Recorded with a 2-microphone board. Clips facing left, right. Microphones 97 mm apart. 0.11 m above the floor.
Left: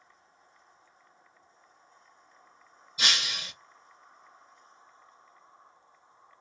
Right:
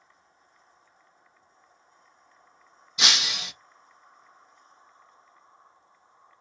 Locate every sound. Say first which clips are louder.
3.0 s breaking glass: right 3 dB; 80° right, 0.7 m